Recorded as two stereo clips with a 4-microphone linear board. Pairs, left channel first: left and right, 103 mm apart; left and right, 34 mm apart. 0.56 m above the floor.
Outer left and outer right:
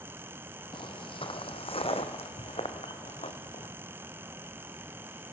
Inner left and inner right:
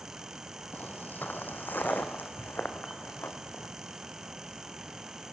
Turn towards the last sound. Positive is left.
turn(degrees=75)  # may be behind; listen again after turning